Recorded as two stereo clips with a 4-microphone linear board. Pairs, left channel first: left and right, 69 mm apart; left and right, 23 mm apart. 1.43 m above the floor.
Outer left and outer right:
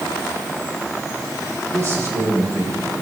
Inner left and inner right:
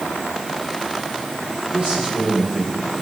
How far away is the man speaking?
About 5.5 m.